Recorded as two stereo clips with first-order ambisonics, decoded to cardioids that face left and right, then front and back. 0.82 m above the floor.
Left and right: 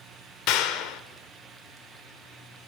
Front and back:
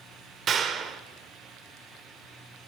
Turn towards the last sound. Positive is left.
turn(degrees=120)